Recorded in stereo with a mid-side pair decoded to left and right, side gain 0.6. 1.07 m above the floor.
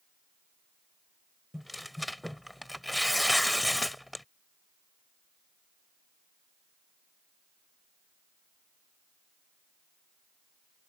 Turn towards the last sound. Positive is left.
turn(degrees=5)